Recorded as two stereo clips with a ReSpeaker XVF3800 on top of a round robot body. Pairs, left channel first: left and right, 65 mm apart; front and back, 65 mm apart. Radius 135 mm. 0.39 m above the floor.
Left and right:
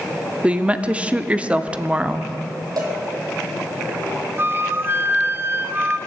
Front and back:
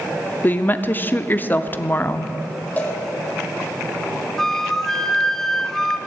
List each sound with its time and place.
0.4 s a woman speaking: 30° right, 0.9 m
2.8 s a cowbell: 65° right, 3 m
4.4 s a flute: 80° right, 1.0 m